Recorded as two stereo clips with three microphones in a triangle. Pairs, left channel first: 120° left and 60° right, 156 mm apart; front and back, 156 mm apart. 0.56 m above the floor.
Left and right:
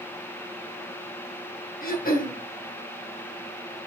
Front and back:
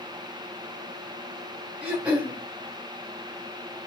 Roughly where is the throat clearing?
Left.